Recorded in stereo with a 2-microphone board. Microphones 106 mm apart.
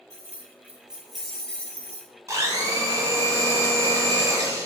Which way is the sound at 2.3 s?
35° right (ahead or behind).